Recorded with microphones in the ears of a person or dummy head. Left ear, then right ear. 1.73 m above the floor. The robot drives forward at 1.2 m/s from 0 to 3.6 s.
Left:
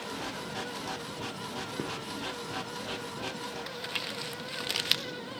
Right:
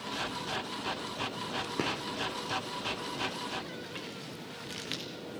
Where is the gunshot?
30° right (ahead or behind), 1.6 m.